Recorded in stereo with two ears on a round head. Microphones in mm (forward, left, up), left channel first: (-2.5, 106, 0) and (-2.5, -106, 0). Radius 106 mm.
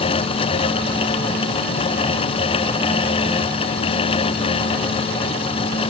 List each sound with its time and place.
Only background noise.